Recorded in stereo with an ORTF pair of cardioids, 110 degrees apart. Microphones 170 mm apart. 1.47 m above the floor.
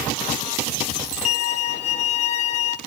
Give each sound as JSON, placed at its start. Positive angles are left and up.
{"t": 1.2, "sound": "a violin", "azimuth_deg": 40, "distance_m": 1.0}